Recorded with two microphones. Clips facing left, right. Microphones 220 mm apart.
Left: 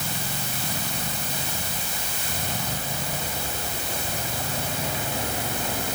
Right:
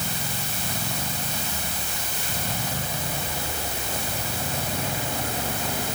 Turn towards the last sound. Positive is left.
No sound to turn to.